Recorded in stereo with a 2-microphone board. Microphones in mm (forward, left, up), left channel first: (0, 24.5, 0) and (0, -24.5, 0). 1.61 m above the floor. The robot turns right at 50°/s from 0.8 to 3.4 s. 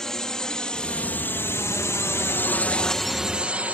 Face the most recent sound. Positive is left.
turn(degrees=-35)  # may be behind; listen again after turning